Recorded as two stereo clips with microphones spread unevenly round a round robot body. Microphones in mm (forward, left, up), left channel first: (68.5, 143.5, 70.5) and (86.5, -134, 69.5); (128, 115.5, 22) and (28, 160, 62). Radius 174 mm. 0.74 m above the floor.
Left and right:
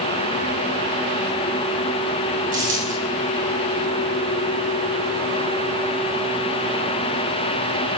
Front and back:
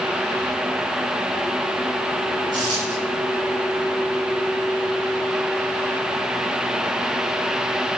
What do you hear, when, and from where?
2.5 s a dropped coin: 155° right, 3 m